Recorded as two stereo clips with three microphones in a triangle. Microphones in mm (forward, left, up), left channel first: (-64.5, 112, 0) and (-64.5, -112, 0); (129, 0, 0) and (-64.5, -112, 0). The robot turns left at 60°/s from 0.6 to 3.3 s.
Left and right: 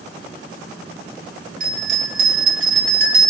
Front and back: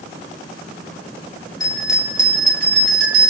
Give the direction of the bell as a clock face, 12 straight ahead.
1 o'clock.